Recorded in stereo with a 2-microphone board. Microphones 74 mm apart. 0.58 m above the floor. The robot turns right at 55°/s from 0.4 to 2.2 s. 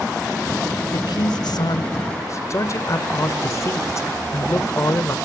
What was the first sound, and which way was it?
A man speaking, 65° left.